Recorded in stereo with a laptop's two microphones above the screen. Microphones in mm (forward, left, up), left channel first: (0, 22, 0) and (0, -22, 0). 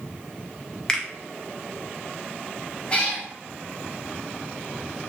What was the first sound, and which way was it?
A finger snap, 20° left (ahead or behind).